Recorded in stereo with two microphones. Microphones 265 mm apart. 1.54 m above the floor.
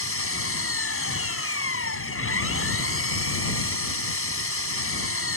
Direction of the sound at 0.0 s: 55° left (ahead or behind).